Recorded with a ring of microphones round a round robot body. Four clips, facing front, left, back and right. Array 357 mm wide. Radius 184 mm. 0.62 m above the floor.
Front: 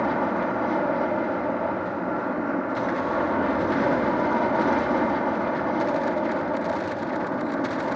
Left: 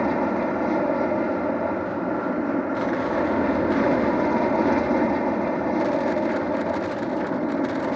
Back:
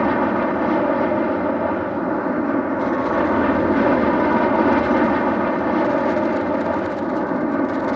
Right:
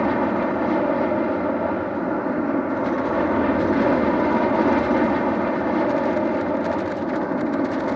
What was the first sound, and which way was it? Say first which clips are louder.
An aircraft: right 2 dB, back 6 dB; 165° right.